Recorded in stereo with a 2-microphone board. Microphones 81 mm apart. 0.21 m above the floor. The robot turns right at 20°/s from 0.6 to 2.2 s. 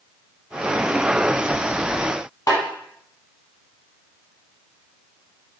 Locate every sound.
2.5 s a snare drum: 45° left (ahead or behind), 0.8 m